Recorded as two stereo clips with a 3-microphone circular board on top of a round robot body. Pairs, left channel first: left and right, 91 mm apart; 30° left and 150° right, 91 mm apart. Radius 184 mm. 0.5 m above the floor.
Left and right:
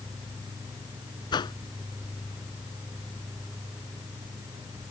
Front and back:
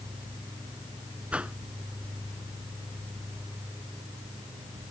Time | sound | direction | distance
1.3 | a whoosh | 130° left | ?